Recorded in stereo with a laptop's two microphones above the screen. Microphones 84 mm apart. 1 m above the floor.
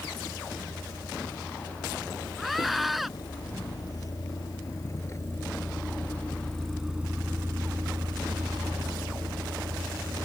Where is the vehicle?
60° left (ahead or behind); by 10.3 s 85° right.